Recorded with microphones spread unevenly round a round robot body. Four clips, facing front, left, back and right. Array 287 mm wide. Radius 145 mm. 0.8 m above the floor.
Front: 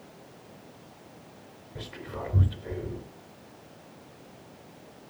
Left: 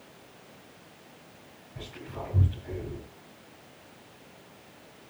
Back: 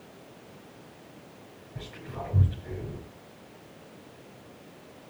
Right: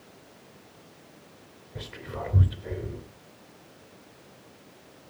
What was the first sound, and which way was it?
Whispering, 95° right.